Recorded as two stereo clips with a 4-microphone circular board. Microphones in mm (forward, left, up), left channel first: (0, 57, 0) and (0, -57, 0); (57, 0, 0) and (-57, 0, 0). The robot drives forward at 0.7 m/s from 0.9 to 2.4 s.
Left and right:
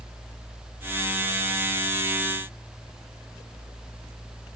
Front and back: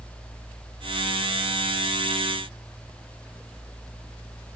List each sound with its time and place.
Only background noise.